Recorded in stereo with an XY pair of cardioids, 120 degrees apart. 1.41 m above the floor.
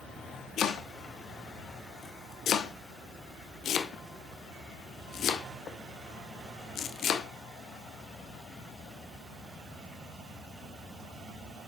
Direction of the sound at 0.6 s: 60° left.